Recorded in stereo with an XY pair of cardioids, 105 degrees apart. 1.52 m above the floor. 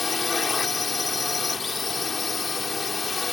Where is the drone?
35° left.